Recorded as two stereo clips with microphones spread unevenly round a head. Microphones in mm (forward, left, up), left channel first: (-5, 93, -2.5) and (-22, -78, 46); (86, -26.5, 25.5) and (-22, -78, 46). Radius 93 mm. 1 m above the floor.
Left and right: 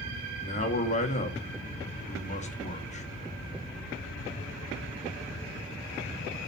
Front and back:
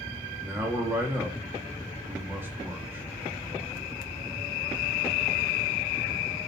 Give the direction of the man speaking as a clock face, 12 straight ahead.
8 o'clock.